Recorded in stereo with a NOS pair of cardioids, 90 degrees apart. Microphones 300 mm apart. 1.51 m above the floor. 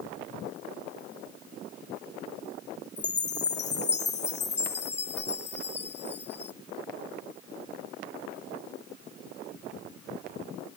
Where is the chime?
35° left.